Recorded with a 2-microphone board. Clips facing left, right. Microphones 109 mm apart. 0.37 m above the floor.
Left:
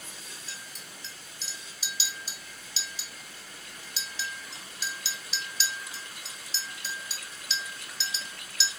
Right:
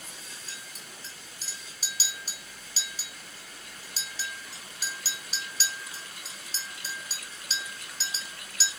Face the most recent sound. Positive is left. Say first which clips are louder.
# even
turn(degrees=-45)  # may be behind; listen again after turning